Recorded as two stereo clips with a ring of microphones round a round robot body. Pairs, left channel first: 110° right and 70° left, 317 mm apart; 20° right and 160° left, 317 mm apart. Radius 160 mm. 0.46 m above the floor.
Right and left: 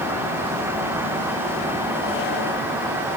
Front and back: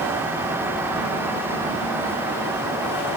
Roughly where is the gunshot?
I don't hear a gunshot.